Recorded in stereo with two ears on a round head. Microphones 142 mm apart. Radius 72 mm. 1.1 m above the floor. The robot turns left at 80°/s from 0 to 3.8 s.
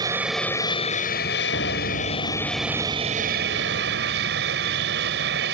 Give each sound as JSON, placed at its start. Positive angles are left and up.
{"t": 0.0, "sound": "an aircraft", "azimuth_deg": -155}
{"t": 1.5, "sound": "a piano", "azimuth_deg": 105}